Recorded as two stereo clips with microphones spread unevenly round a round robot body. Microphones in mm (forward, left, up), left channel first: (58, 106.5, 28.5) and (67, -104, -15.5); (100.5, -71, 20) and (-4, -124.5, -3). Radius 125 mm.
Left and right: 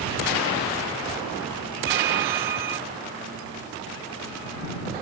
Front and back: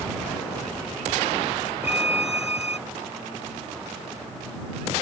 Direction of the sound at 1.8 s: 85° right.